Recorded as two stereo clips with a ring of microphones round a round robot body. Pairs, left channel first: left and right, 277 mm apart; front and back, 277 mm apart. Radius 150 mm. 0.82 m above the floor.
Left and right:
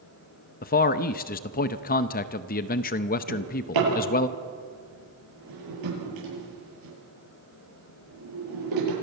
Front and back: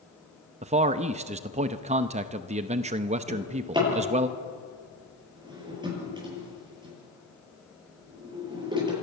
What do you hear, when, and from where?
0.6 s a man speaking: 125° left, 0.6 m
3.3 s a drawer: 105° right, 9 m